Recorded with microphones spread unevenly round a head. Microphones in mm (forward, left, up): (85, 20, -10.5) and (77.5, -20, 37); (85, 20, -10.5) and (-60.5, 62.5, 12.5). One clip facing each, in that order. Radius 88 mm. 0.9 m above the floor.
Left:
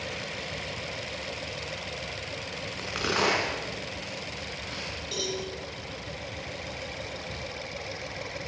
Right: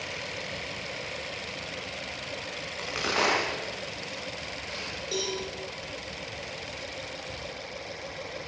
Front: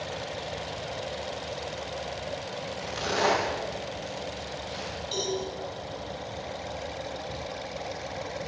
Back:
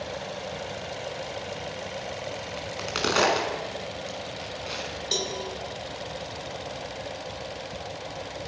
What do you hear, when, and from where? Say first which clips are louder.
2.6 s a crack: left 1 dB, back 2 dB; 170° left, 5.5 m
5.1 s a cowbell: right 2 dB, front 2 dB; 175° left, 4.5 m